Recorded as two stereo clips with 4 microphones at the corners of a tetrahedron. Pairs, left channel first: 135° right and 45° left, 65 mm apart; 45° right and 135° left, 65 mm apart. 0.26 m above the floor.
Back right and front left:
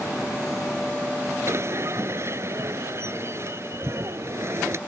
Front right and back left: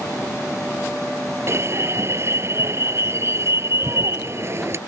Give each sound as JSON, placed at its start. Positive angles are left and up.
{"t": 1.5, "sound": "an alarm", "azimuth_deg": 90}